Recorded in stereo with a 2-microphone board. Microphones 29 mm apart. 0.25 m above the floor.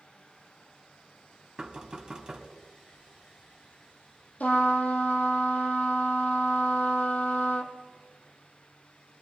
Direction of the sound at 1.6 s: 25° right (ahead or behind).